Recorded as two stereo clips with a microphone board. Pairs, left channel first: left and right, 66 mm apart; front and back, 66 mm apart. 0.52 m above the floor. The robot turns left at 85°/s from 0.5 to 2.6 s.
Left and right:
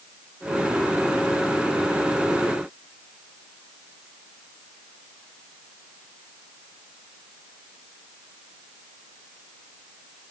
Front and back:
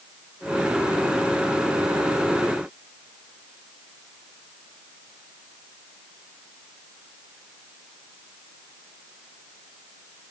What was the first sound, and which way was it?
Only background noise.